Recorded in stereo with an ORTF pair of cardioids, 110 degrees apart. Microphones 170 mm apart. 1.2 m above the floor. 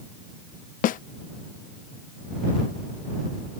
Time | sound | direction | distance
0.8 | a snare drum | 55° left | ?